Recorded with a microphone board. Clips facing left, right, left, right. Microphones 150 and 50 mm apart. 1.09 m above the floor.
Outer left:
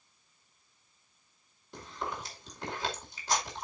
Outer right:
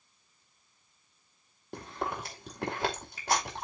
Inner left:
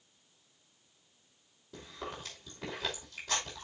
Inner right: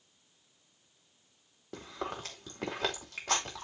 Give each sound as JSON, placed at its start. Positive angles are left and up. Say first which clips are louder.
{"t": 1.7, "sound": "chewing", "louder": "outer right 3 dB, inner right 4 dB", "side_deg": -60, "distance_m": 4.0}